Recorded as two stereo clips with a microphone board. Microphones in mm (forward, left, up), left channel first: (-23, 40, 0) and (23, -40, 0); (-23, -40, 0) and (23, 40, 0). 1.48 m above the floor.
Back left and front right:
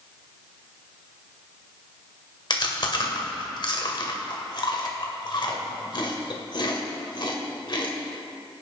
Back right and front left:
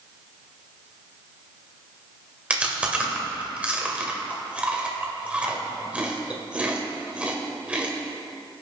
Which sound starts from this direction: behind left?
Chewing, at 2.5 s.